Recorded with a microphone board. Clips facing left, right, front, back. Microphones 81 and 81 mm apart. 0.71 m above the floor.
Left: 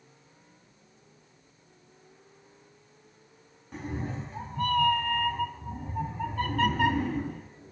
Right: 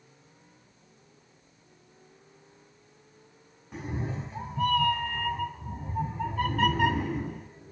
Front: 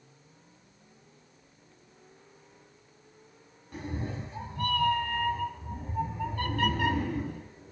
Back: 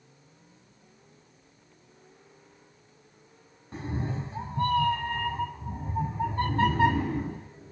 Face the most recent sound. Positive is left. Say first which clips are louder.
# even, back 3 dB
turn(degrees=-175)